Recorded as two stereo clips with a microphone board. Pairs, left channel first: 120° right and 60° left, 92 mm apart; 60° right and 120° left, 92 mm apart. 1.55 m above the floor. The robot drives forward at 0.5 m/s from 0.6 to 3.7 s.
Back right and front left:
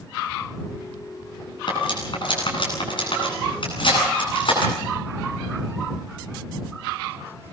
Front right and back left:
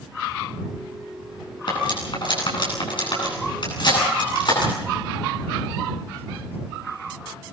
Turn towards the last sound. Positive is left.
turn(degrees=-95)